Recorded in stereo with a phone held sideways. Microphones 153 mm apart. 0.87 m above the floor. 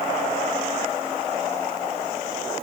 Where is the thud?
I don't hear a thud.